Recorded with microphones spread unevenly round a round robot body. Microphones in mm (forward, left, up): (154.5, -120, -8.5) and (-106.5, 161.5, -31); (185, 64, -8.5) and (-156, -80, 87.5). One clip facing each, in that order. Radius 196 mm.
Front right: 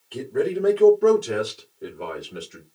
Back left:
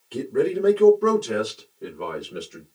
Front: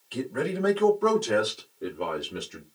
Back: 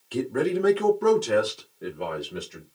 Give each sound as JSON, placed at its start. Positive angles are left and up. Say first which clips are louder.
{"t": 0.1, "sound": "a man speaking", "louder": "back left 2 dB, back 5 dB", "azimuth_deg": -165, "distance_m": 1.2}